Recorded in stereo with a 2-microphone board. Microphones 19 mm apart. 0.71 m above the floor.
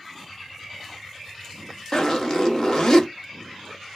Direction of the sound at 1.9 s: 40° left (ahead or behind).